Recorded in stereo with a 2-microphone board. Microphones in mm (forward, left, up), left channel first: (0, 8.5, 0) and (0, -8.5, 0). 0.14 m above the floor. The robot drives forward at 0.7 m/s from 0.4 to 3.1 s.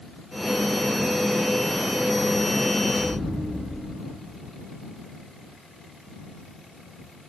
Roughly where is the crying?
I don't hear crying.